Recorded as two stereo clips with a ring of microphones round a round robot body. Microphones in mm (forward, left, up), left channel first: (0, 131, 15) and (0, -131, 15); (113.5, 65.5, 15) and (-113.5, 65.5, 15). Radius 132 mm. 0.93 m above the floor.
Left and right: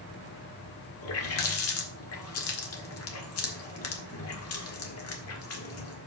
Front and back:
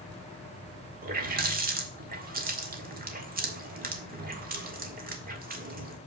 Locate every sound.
1.0 s a running tap: 130° left, 1.7 m